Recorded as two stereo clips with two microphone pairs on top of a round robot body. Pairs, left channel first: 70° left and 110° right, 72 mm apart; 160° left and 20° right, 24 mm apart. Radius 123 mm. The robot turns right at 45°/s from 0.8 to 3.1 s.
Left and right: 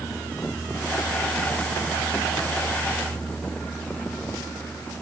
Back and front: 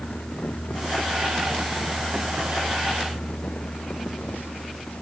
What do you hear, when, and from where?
Only background noise.